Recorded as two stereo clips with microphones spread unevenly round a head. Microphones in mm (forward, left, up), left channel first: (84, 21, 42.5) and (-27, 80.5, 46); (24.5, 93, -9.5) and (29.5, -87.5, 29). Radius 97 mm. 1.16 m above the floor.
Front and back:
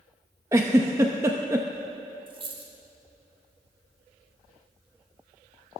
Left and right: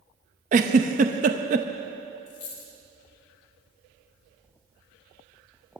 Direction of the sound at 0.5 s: 135° right.